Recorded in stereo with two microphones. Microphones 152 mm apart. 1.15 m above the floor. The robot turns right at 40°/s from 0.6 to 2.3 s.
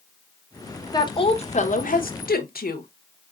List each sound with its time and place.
0.9 s a woman speaking: 25° left, 0.8 m; by 2.9 s 80° left, 0.8 m